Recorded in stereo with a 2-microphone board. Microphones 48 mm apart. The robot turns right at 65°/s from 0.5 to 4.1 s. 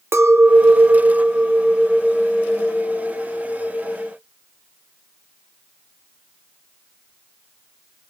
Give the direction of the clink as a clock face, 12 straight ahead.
3 o'clock.